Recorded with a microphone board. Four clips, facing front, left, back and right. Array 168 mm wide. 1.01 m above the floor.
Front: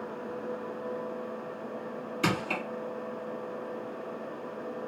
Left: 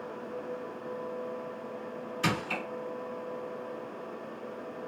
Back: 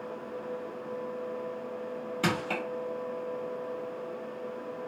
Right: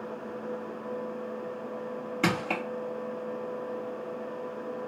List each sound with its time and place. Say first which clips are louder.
2.2 s crushing: right 3 dB, front 1 dB; 105° right, 1.7 m